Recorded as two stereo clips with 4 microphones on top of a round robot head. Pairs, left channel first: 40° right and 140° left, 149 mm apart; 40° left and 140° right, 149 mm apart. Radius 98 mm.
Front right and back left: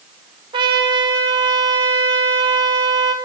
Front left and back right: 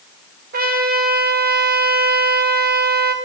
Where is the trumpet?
160° right, 2 m.